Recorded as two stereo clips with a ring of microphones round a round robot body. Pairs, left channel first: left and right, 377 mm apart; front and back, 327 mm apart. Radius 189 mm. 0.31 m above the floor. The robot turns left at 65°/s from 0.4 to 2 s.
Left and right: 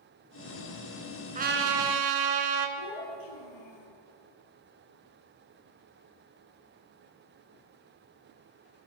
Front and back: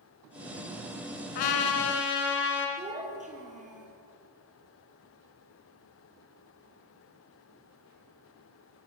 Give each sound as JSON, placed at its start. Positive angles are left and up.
{"t": 1.4, "sound": "a trumpet", "azimuth_deg": -20, "distance_m": 2.0}
{"t": 2.8, "sound": "a child speaking", "azimuth_deg": 110, "distance_m": 5.0}